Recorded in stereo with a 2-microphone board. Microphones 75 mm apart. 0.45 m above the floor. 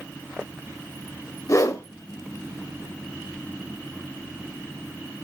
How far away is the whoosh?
About 1.2 m.